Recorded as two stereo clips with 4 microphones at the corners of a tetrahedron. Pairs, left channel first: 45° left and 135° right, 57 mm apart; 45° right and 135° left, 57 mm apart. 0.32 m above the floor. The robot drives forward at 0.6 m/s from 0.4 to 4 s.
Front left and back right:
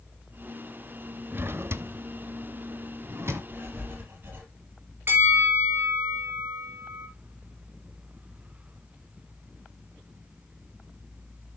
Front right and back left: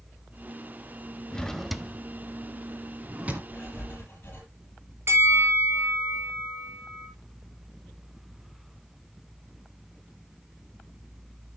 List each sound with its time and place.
1.3 s a drawer: 110° right, 0.6 m; by 3.4 s 165° right, 1.5 m
3.5 s writing: 95° right, 5 m; by 4.5 s 100° right, 5 m
5.1 s a bell: 175° left, 3 m